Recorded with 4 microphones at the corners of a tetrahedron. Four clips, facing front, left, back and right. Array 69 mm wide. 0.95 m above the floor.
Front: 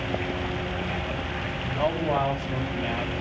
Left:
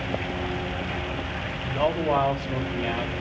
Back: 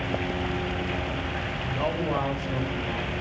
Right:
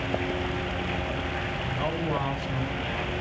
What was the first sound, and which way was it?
A man speaking, 90° left.